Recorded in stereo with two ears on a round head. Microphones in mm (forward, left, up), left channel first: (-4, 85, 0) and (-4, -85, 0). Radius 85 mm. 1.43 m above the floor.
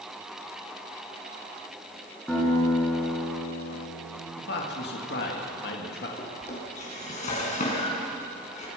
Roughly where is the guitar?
Centre.